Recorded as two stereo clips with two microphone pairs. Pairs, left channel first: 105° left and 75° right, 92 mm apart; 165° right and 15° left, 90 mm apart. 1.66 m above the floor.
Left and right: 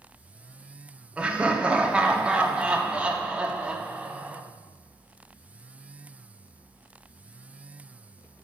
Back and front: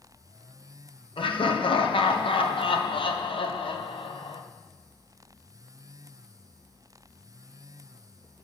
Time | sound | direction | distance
1.2 | laughter | 150° right | 1.0 m